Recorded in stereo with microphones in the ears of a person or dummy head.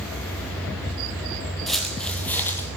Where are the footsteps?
Centre (ahead or behind), 2.5 m; by 2.7 s 15° left (ahead or behind), 3 m.